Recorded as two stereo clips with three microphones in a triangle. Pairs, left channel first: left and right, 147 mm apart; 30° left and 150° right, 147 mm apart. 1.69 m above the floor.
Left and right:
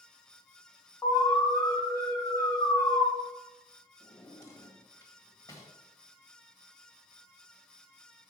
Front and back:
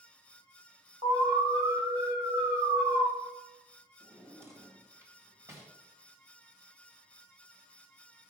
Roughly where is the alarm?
Behind.